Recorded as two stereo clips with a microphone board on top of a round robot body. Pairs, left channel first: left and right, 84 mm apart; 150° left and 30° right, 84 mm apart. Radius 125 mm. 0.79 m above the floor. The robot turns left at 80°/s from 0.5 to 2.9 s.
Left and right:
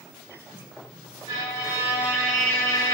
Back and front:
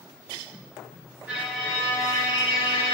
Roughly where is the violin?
Right.